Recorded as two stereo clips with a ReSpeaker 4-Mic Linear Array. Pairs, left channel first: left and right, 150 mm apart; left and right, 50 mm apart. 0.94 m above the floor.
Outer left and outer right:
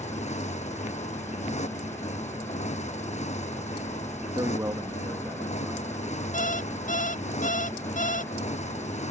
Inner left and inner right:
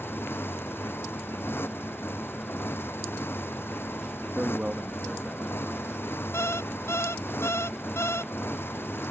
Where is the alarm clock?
60° left (ahead or behind).